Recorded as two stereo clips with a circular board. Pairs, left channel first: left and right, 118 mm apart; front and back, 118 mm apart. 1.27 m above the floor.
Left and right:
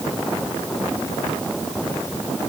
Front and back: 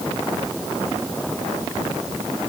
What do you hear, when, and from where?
Only background noise.